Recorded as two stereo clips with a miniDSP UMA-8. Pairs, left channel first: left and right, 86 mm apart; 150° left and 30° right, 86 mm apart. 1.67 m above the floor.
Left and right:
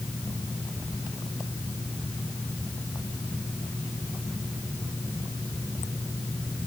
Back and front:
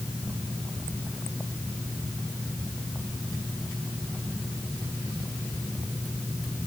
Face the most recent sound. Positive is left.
No sound to turn to.